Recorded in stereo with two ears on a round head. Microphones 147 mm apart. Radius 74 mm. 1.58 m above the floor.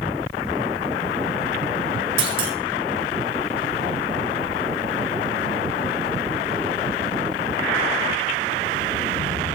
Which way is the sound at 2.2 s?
35° right (ahead or behind).